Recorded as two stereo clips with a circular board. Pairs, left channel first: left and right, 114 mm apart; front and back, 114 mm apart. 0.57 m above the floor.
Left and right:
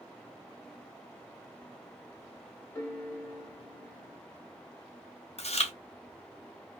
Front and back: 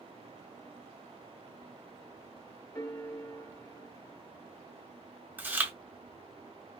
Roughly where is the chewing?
Left.